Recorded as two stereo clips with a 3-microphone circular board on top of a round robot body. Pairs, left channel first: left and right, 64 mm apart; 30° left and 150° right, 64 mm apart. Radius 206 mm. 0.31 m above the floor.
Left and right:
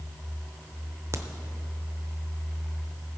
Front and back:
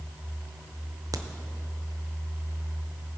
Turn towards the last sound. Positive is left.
turn(degrees=-130)